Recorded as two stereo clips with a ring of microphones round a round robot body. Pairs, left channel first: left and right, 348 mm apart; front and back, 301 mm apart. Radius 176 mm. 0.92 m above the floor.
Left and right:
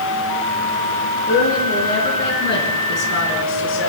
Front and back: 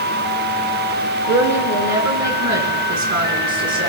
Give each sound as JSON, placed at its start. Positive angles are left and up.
{"t": 1.3, "sound": "a woman speaking", "azimuth_deg": 160, "distance_m": 10.0}